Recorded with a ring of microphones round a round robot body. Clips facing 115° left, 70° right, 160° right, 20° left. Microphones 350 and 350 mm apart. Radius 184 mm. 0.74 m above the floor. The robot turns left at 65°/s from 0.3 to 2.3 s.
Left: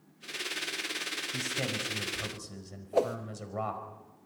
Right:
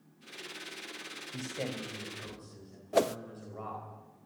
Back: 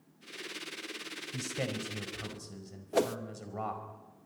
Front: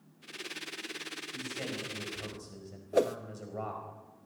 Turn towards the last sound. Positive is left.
turn(degrees=-90)